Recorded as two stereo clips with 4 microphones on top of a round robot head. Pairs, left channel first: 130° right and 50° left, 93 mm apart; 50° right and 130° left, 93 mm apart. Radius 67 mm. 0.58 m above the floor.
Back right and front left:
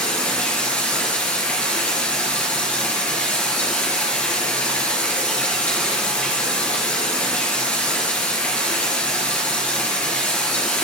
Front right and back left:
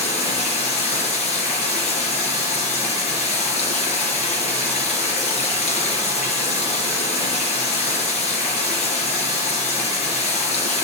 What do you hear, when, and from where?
0.0 s running water: 55° right, 3.5 m